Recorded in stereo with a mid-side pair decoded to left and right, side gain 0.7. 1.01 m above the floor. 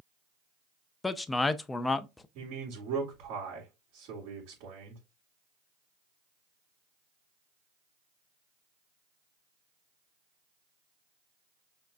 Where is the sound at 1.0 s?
15° left, 0.6 m.